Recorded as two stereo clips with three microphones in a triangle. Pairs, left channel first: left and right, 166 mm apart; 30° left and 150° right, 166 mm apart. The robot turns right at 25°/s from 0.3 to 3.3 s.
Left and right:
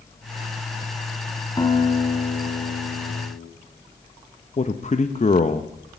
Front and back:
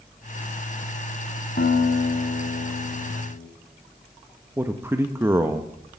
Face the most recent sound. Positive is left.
turn(degrees=135)